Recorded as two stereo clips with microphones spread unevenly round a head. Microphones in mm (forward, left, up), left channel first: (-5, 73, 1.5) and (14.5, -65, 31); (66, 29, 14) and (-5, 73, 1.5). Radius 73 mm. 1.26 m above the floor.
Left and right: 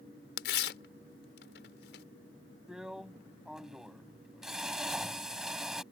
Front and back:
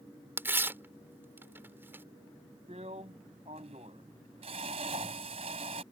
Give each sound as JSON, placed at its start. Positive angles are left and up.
{"t": 0.4, "sound": "tearing paper", "azimuth_deg": 80}
{"t": 2.7, "sound": "a drill", "azimuth_deg": -170}